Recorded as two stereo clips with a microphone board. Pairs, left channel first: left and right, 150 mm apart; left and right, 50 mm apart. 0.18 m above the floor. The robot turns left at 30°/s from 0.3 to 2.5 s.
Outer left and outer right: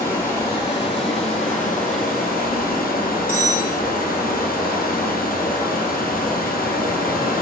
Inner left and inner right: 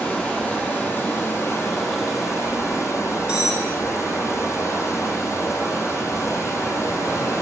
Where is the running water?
160° left, 2.5 m; by 7.4 s 95° left, 2.5 m.